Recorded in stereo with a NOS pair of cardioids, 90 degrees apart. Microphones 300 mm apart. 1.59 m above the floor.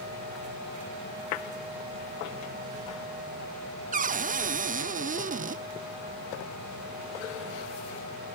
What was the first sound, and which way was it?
A cupboard door, 25° right.